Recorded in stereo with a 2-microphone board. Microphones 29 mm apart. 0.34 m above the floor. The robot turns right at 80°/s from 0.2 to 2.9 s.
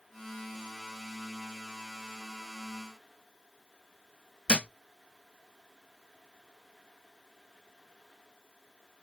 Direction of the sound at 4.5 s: 40° left (ahead or behind).